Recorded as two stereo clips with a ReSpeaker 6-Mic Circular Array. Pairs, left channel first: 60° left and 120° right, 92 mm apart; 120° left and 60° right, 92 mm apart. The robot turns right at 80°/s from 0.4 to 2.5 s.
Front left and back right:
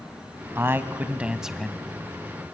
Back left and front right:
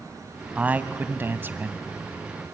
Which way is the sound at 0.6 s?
115° right.